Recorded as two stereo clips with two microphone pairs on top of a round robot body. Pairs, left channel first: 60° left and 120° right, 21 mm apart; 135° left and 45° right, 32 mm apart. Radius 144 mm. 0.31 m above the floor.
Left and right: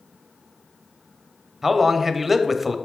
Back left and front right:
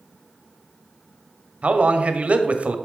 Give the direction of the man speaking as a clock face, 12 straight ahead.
1 o'clock.